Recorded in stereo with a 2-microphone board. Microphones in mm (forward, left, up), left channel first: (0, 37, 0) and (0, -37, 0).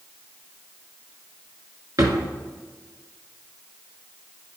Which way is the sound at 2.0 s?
55° right (ahead or behind).